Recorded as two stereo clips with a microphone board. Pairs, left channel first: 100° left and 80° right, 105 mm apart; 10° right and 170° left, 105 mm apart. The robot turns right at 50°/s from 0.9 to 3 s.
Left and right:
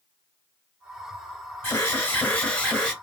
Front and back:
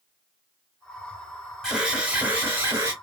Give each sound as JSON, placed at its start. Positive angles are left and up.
{"t": 1.6, "sound": "an alarm", "azimuth_deg": 100, "distance_m": 1.2}